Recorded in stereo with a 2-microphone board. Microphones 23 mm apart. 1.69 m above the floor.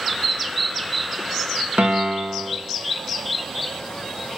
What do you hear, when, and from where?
1.8 s a piano: 75° right (ahead or behind), 2.0 m